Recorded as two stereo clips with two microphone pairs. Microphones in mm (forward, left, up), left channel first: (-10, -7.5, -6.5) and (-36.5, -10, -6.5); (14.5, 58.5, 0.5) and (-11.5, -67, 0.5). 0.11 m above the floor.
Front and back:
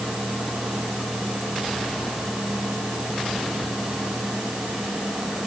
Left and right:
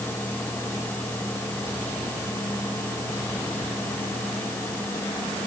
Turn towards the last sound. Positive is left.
No sound to turn to.